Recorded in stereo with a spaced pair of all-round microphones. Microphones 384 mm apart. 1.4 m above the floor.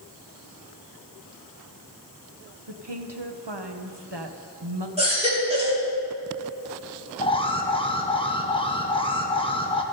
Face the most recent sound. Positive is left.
turn(degrees=15)  # may be behind; listen again after turning